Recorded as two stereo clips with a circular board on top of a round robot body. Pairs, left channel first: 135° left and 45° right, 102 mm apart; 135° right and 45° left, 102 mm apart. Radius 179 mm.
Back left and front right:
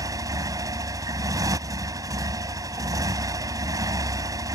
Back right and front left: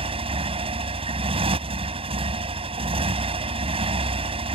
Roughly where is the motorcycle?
Ahead.